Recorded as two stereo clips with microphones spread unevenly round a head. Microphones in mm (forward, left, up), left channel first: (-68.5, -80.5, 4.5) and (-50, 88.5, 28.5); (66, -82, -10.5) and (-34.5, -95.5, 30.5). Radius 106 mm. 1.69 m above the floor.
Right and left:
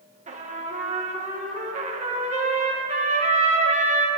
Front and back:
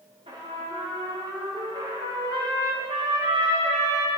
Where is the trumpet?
130° left, 1.6 m.